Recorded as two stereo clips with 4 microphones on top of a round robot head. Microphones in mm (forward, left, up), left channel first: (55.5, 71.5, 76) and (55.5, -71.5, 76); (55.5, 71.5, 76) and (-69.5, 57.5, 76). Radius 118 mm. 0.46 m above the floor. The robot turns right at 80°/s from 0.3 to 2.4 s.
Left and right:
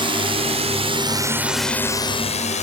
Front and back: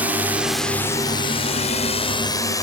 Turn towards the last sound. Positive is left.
turn(degrees=65)